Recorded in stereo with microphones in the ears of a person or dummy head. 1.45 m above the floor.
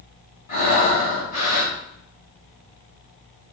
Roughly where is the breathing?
Left.